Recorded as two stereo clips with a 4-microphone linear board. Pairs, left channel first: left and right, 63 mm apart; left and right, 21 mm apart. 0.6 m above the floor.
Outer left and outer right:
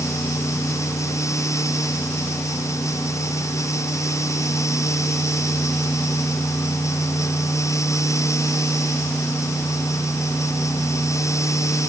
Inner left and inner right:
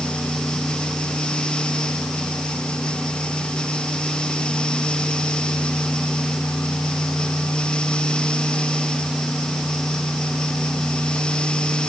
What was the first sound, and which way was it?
Only background noise.